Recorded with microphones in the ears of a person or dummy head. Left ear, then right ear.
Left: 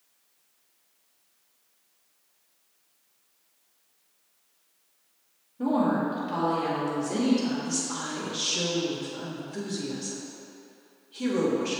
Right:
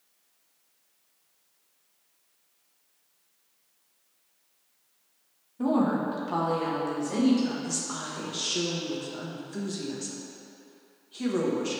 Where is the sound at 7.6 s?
65° right (ahead or behind), 1.6 m.